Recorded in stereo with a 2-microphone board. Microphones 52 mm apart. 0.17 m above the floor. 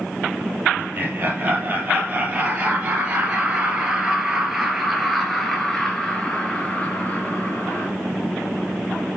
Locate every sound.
0.8 s laughter: 35° right (ahead or behind), 4 m; by 7.9 s 35° left (ahead or behind), 2.5 m